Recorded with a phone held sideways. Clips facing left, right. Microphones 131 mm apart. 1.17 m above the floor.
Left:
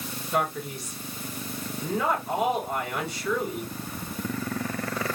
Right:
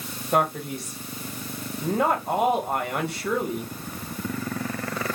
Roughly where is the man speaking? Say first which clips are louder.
Right 4 dB; right.